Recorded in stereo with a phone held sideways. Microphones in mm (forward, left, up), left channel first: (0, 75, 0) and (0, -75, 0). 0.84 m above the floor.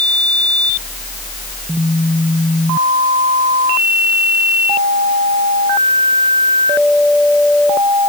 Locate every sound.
Only background noise.